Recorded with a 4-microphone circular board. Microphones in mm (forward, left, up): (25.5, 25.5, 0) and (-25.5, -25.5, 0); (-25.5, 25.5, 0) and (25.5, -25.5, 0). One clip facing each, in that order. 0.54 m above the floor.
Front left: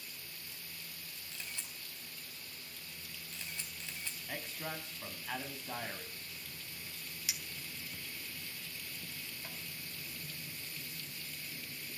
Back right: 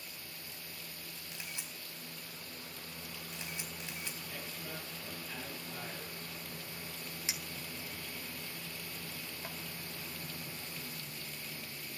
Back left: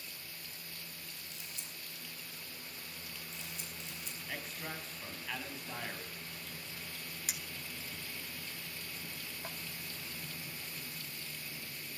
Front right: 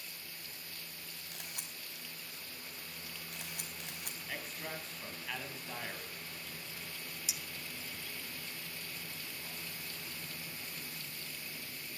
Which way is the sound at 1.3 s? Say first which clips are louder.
Even, front right 1 dB; 65° right.